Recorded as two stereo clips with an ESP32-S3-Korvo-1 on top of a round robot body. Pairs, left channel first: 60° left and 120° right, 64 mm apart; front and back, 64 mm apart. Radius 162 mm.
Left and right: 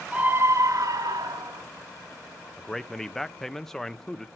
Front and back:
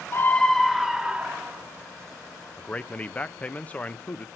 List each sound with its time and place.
0.1 s a scream: 50° right, 0.8 m; by 1.6 s 110° right, 2.0 m
2.6 s a man speaking: 15° right, 0.9 m